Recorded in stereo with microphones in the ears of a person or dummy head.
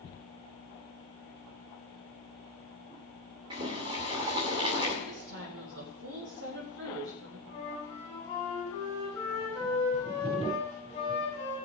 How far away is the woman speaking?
About 3.5 m.